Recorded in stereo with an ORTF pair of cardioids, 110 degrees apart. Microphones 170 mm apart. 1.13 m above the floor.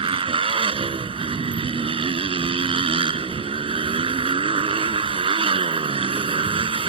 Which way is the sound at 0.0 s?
35° right.